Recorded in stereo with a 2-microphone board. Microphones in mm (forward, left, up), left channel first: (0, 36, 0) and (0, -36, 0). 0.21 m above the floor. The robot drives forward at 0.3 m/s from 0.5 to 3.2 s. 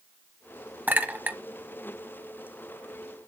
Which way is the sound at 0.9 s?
20° right (ahead or behind).